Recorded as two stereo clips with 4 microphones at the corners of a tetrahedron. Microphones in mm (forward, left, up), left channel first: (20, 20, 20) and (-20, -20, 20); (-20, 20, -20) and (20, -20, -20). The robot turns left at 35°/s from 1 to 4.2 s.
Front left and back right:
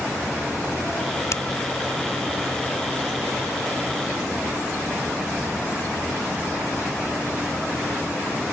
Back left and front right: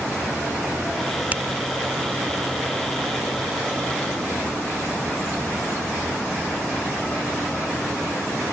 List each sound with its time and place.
1.3 s a finger snap: 15° left; by 1.4 s 10° left